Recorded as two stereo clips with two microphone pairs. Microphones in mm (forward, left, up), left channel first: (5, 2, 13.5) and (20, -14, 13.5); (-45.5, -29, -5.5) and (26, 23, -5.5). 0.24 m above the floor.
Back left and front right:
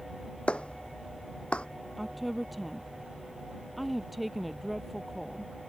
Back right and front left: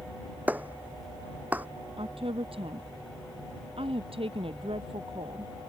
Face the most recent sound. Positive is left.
turn(degrees=40)